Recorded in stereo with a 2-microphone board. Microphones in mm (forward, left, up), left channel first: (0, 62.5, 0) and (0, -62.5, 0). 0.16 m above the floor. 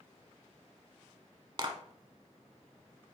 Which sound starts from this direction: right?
A clap, at 1.6 s.